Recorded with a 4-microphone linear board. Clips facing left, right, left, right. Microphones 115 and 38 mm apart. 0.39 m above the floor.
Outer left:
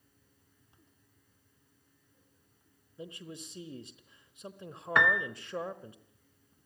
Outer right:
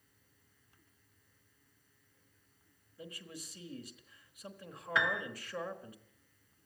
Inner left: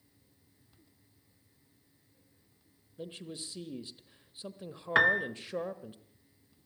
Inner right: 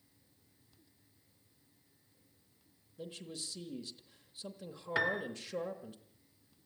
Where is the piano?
55° left (ahead or behind), 1.1 m.